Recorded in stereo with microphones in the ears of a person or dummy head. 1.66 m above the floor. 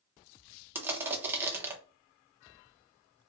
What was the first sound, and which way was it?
Crushing, 15° right (ahead or behind).